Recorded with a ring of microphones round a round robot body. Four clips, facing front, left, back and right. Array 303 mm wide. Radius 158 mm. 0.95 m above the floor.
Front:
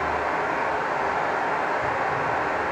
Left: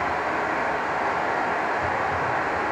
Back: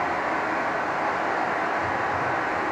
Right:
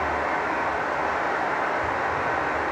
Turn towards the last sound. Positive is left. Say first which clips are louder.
# even, front 1 dB
turn(degrees=95)